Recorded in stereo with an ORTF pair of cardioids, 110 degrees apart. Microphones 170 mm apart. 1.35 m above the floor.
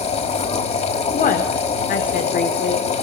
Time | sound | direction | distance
0.0 | a machine running | 40° left | 6 m
1.1 | a woman speaking | 55° left | 4 m